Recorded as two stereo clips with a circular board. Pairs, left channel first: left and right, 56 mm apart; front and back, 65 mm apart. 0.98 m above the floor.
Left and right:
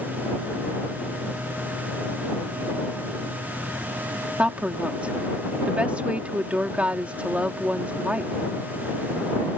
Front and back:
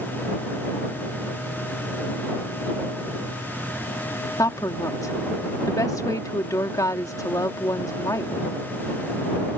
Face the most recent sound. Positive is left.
turn(degrees=-25)